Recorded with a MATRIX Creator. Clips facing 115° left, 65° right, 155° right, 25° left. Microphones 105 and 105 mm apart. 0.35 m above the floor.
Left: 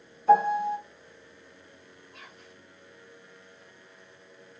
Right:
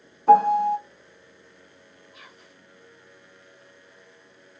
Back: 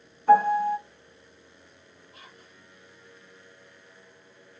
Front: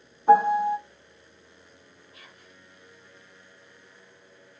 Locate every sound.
0.3 s a piano: 45° right, 0.5 m
2.1 s whispering: 150° right, 1.3 m